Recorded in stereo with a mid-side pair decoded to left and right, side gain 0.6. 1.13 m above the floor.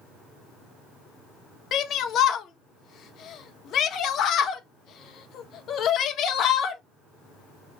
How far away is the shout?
About 1.1 m.